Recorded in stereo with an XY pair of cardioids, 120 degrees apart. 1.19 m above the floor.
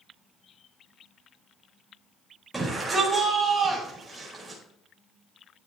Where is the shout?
10° right, 5 m.